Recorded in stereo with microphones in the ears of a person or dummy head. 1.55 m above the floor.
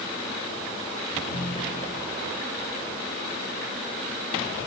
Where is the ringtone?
45° left (ahead or behind), 4.5 m.